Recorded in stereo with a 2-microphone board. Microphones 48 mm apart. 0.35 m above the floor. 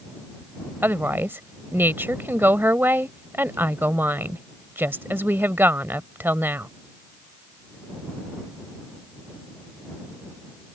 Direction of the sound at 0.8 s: 50° right (ahead or behind).